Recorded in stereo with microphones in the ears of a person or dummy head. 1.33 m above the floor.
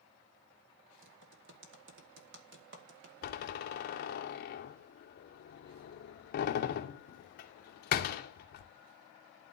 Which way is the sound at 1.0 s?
60° right (ahead or behind).